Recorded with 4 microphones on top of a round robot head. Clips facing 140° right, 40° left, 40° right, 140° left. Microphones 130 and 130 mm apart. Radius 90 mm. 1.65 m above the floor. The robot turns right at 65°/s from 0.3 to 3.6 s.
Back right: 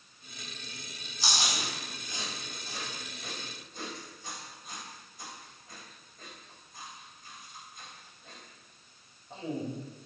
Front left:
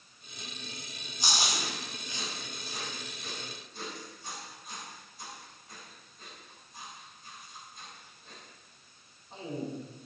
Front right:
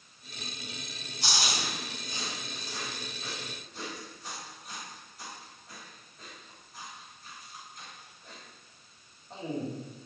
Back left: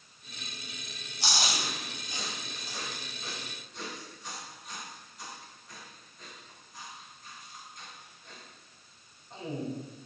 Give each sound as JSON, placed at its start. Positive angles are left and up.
{"t": 1.2, "sound": "chewing", "azimuth_deg": 110, "distance_m": 3.5}